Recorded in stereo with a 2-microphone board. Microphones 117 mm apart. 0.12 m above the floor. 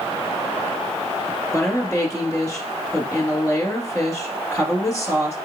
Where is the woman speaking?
25° left (ahead or behind), 1.5 m.